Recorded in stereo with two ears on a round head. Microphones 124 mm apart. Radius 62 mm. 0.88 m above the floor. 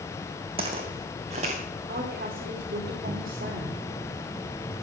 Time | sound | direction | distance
0.6 | footsteps | 40° right (ahead or behind) | 2 m
1.9 | a woman speaking | 65° right (ahead or behind) | 2.5 m